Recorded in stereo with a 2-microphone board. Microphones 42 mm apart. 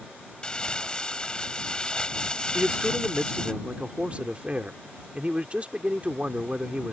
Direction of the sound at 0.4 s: 20° left (ahead or behind).